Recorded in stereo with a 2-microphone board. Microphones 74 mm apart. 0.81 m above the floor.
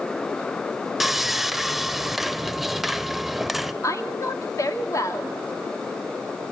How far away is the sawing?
About 0.6 m.